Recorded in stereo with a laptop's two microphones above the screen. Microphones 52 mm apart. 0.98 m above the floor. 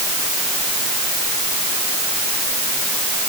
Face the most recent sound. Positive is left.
No sound to turn to.